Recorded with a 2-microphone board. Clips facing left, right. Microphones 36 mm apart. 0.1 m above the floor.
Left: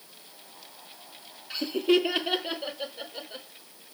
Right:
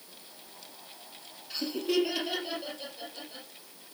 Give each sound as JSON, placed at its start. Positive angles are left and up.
{"t": 1.5, "sound": "laughter", "side_deg": 30, "distance_m": 2.5}